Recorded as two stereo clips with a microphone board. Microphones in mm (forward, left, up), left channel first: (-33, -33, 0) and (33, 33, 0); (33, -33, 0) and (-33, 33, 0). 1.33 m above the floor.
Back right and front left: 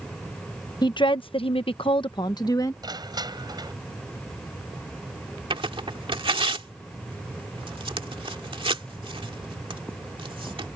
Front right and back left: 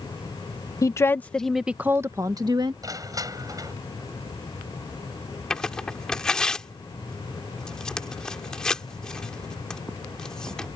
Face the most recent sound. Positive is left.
turn(degrees=35)